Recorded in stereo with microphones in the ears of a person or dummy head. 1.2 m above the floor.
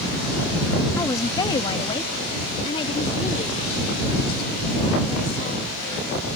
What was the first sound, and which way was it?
A woman speaking, 20° left (ahead or behind).